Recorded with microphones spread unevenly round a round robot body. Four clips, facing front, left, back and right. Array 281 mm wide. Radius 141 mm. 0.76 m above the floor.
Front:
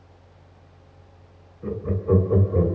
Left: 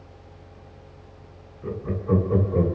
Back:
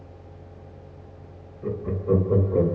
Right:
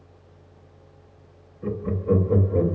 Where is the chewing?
No chewing in this recording.